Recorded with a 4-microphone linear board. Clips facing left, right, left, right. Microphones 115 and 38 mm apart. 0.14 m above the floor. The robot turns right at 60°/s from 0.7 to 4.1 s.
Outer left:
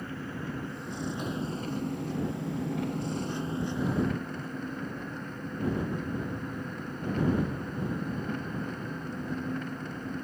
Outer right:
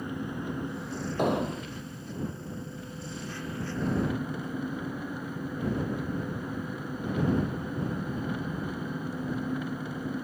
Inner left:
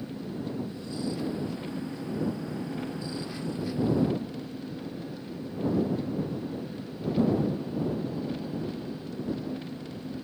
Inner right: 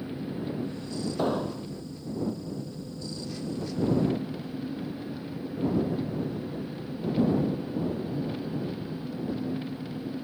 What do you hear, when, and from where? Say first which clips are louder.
0.0 s an engine running: outer right 3 dB, inner right 2 dB; 15° right; by 10.2 s 170° right
1.2 s an explosion: outer right 6 dB, inner right 4 dB; 65° right (ahead or behind); by 1.7 s 80° right